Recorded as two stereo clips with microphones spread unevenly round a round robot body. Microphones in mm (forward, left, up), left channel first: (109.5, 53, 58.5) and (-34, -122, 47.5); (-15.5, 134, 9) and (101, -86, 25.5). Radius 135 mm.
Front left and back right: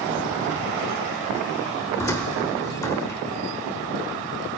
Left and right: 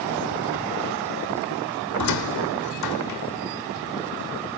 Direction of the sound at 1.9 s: 130° left.